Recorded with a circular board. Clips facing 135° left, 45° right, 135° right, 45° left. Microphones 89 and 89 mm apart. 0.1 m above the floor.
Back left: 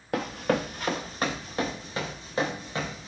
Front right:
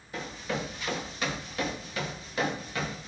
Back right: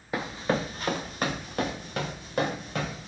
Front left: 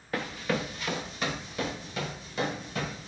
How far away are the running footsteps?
About 0.5 m.